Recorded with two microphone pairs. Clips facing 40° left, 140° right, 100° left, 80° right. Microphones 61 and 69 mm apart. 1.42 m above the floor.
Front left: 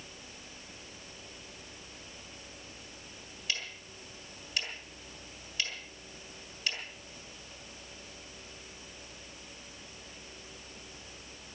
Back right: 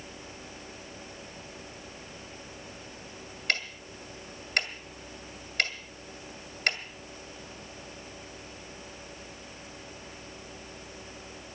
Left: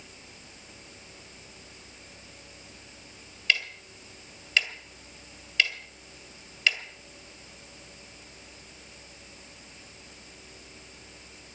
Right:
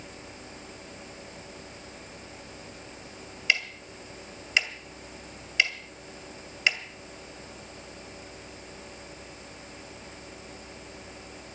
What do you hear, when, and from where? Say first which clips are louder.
3.5 s ticking: back right 7 dB, even; 150° right, 1.9 m